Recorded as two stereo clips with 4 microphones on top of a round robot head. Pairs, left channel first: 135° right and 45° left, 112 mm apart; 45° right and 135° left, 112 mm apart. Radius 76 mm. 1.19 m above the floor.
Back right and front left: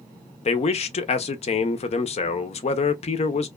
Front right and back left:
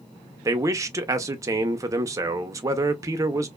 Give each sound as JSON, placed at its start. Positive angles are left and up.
{"t": 0.5, "sound": "a man speaking", "azimuth_deg": -160, "distance_m": 0.5}